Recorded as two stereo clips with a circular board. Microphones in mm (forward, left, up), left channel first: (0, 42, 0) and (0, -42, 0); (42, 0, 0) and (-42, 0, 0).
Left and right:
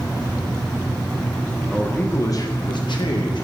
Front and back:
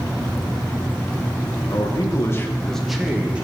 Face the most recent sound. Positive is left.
turn(degrees=105)